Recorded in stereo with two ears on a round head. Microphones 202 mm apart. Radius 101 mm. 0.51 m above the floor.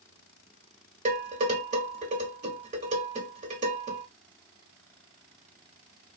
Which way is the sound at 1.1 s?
35° right (ahead or behind).